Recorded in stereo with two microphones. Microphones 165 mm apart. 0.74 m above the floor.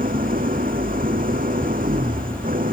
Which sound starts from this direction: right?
An engine running, at 0.0 s.